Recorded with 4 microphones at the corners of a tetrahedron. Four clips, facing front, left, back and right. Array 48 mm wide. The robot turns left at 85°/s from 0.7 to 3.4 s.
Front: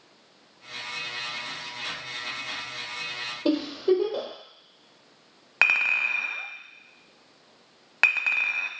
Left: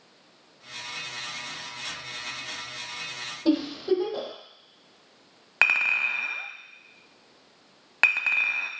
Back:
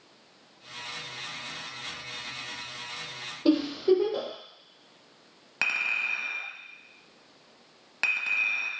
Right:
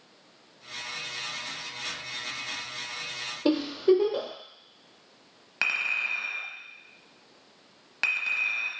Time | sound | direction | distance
3.5 | a giggle | 85° right | 1.5 m
5.6 | a clink | 40° left | 0.8 m